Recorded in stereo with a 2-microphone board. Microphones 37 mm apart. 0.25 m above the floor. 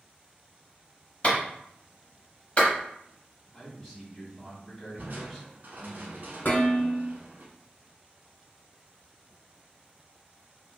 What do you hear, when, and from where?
1.2 s a clap: 30° left (ahead or behind), 1.2 m
3.5 s a man speaking: 15° left (ahead or behind), 1.4 m
5.0 s crushing: 55° right (ahead or behind), 0.9 m
6.5 s dishes clattering: 55° left (ahead or behind), 1.9 m